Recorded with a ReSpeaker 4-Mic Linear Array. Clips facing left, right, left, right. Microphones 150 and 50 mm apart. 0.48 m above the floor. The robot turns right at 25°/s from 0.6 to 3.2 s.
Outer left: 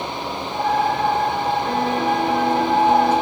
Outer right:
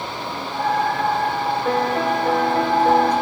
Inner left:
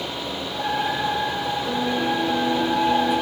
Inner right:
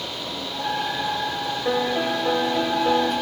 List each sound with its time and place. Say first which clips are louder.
1.6 s a piano: even, inner right 3 dB; 105° right, 3 m; by 3.1 s 70° right, 3 m